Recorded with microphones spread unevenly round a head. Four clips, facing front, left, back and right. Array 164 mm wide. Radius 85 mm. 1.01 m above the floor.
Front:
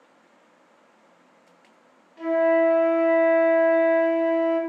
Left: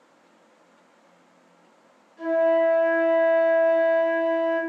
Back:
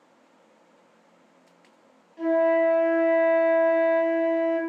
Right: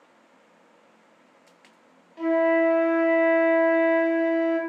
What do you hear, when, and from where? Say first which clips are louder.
2.2 s a flute: even, front 1 dB; 80° right, 0.8 m